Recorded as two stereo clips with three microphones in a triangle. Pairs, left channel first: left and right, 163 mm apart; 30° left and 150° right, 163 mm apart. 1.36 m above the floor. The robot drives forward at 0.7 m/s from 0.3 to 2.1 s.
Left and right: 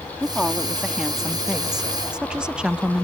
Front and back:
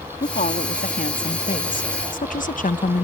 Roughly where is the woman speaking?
Ahead.